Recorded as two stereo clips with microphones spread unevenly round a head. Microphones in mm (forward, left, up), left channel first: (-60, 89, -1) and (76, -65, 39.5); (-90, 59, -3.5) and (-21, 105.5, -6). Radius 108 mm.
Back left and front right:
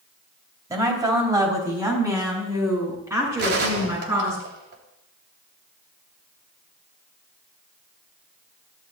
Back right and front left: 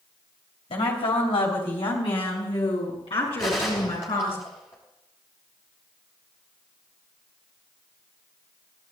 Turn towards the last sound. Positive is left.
turn(degrees=-85)